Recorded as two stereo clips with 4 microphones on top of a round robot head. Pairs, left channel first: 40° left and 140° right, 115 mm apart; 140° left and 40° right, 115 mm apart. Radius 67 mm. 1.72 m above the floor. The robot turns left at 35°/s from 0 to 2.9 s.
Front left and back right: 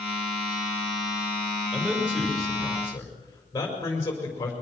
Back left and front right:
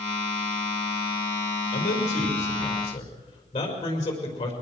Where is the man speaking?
145° left, 5.5 m; by 4.5 s 105° left, 5.5 m.